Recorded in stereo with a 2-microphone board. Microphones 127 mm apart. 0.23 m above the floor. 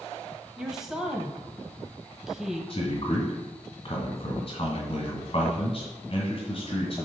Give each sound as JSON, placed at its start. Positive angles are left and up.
{"t": 0.6, "sound": "a woman speaking", "side_deg": -5, "distance_m": 0.9}
{"t": 2.7, "sound": "a man speaking", "side_deg": 45, "distance_m": 2.0}